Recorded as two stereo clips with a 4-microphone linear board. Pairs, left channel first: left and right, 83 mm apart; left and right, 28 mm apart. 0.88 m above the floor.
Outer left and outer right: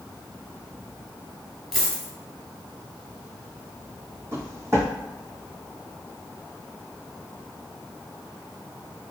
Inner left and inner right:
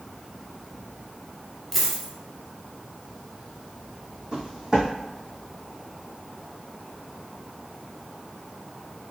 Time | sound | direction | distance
1.7 | a dropped coin | centre (ahead or behind) | 1.1 m
4.3 | footsteps | 30° right (ahead or behind) | 1.9 m